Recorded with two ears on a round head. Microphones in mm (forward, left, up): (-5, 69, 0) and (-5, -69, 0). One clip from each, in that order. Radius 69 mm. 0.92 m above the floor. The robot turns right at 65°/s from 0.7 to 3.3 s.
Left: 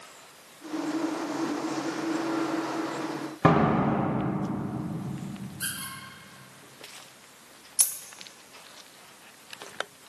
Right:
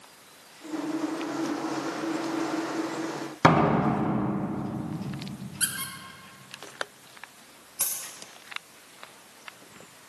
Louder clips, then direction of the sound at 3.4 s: Right 2 dB; 80° right.